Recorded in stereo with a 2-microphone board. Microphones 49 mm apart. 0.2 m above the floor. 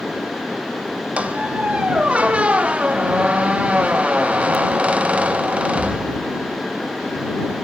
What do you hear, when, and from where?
1.2 s a squeak: 25° right (ahead or behind)